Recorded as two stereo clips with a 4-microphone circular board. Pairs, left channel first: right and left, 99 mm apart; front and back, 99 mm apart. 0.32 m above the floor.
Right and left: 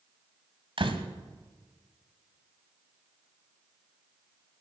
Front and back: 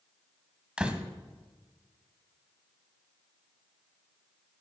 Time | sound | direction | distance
0.8 | a door slam | 100° left | 1.3 m